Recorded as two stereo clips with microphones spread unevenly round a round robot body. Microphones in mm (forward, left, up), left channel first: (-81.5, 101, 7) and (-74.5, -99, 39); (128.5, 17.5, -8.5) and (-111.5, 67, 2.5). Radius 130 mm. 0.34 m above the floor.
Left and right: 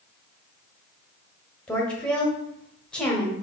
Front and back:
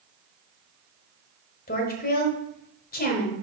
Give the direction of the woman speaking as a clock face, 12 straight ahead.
11 o'clock.